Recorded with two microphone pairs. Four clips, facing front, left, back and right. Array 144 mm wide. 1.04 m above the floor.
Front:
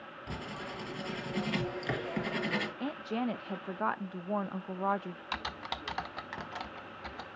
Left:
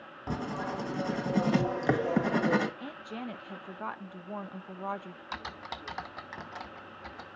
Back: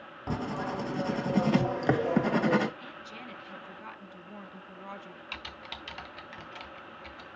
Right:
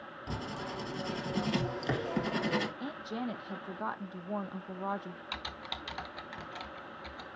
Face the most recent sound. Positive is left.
turn(degrees=25)